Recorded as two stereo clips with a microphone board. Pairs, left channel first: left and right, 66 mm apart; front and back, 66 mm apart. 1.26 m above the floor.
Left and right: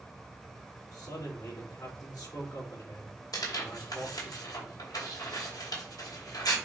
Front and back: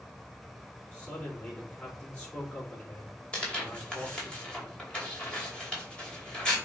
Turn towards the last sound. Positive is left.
turn(degrees=75)